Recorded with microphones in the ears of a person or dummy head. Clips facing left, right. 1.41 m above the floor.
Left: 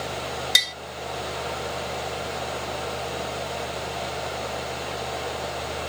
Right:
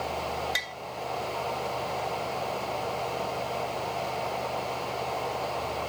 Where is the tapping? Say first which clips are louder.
Left 2 dB; 60° left (ahead or behind).